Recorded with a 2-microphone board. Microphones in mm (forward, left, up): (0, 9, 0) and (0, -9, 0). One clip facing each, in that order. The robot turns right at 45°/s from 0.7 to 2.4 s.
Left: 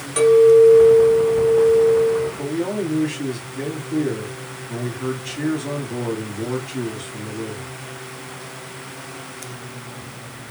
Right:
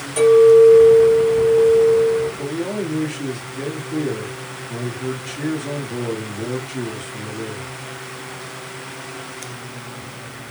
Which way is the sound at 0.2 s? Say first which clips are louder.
Right 1 dB; 30° left.